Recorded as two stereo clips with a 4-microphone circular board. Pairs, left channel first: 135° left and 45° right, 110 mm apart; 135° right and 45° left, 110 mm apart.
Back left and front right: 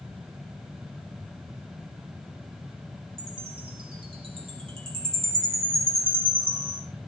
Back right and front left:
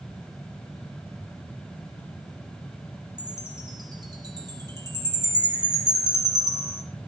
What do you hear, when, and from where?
3.2 s a chime: 10° right, 4 m